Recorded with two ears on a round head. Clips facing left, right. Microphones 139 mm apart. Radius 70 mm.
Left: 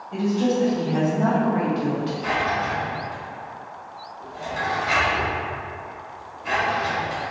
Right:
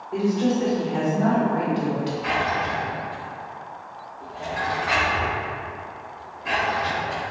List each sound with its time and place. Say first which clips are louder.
0.1 s a woman speaking: even; 55° left (ahead or behind), 1.5 m; by 2.1 s 15° right (ahead or behind), 0.9 m
2.2 s a drawer: even; 50° left (ahead or behind), 1.7 m